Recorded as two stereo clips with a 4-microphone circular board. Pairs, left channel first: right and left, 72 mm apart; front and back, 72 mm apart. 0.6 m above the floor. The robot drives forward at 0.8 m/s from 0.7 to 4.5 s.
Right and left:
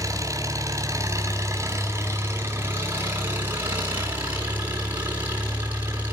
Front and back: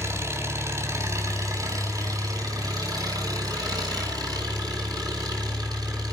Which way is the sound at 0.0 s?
130° left.